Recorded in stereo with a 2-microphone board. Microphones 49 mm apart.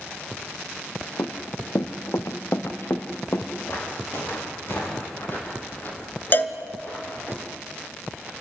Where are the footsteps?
55° left (ahead or behind), 8 m; by 7.3 s 30° left (ahead or behind), 8 m.